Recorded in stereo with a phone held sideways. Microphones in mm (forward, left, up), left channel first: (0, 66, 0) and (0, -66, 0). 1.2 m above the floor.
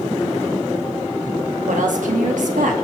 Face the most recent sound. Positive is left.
turn(degrees=-75)  # may be behind; listen again after turning